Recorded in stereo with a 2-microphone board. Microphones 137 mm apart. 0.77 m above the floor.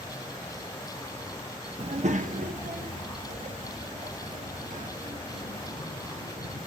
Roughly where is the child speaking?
Right.